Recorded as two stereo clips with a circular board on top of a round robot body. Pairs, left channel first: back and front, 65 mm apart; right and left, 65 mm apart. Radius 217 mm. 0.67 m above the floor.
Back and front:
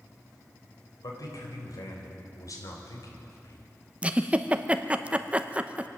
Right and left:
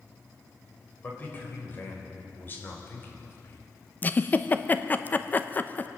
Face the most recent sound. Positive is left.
turn(degrees=-55)